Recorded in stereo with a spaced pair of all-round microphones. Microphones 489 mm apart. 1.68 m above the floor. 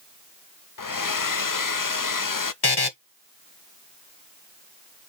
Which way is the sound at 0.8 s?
40° left (ahead or behind).